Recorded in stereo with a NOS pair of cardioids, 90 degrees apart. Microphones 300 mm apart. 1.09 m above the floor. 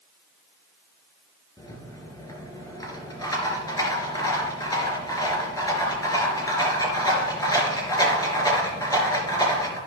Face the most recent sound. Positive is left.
turn(degrees=10)